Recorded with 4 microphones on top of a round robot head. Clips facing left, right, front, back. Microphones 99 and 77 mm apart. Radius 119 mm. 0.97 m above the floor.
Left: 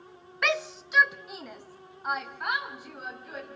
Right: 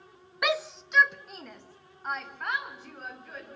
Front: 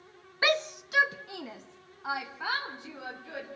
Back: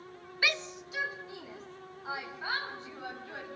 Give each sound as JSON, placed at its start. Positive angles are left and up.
{"t": 0.4, "sound": "a shout", "azimuth_deg": -20, "distance_m": 0.5}